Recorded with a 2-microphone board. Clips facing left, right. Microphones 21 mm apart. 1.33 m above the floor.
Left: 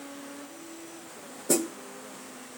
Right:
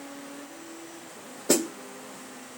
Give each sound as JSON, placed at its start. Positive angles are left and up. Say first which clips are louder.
{"t": 1.5, "sound": "a snare drum", "louder": "right 2 dB", "side_deg": -35, "distance_m": 0.8}